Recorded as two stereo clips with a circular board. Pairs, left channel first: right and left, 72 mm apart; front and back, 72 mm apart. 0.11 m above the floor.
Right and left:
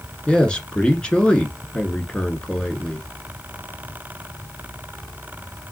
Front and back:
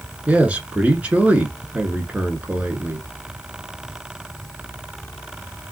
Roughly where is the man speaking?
Behind right.